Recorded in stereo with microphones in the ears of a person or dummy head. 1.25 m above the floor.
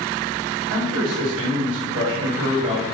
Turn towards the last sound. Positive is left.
turn(degrees=-70)  # may be behind; listen again after turning